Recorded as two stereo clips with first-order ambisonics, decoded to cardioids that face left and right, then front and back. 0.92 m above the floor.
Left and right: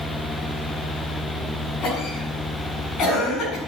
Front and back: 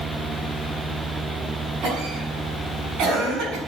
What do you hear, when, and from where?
1.8 s a cough: 140° left, 7 m